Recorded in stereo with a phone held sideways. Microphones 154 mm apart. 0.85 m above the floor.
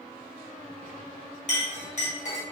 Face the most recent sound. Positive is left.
turn(degrees=50)  # may be behind; listen again after turning